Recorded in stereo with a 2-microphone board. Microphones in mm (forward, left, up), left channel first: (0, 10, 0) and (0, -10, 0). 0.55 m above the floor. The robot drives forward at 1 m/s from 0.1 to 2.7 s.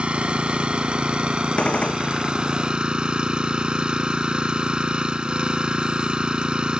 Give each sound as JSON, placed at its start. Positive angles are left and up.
{"t": 0.0, "sound": "an engine running", "side_deg": -80}
{"t": 1.6, "sound": "a gunshot", "side_deg": 85}